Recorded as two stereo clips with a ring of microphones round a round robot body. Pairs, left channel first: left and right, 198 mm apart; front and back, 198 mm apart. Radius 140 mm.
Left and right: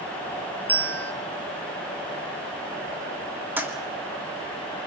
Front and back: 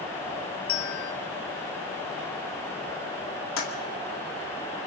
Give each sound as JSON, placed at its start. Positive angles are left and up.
{"t": 0.7, "sound": "a bell", "azimuth_deg": 10, "distance_m": 1.0}
{"t": 3.6, "sound": "a toilet flushing", "azimuth_deg": -10, "distance_m": 3.0}